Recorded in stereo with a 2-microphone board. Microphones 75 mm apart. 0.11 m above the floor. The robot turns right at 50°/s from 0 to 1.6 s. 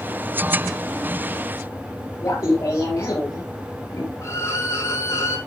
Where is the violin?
40° left (ahead or behind), 2.5 m.